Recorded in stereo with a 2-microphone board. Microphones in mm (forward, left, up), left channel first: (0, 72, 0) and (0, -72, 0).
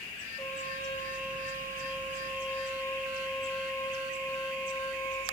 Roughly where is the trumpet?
Centre.